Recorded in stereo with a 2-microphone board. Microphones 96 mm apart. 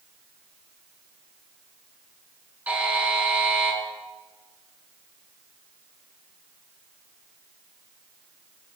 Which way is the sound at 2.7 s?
15° right (ahead or behind).